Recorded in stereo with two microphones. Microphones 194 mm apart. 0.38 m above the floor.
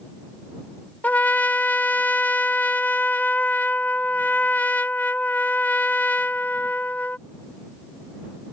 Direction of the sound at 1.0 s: 10° left (ahead or behind).